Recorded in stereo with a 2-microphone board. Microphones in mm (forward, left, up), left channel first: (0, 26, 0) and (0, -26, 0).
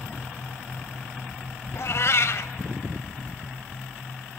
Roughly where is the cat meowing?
Left.